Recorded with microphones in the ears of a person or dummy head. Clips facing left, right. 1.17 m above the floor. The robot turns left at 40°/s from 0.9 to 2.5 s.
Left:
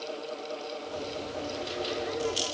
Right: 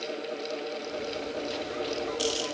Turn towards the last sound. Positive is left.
No sound to turn to.